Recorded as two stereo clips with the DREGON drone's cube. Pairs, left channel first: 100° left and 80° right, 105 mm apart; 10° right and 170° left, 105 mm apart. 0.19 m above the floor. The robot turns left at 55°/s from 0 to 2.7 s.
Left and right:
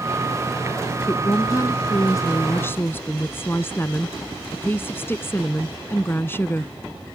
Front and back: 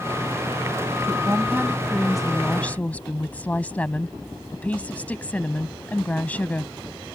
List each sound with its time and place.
1.0 s a woman speaking: 145° left; by 6.7 s 55° left